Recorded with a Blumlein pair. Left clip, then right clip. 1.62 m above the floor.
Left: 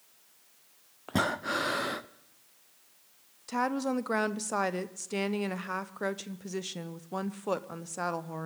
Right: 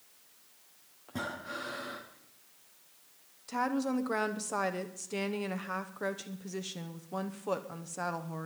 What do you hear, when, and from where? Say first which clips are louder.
1.1 s breathing: left 9 dB; 35° left, 0.6 m
3.5 s a woman speaking: left 2 dB; 10° left, 0.8 m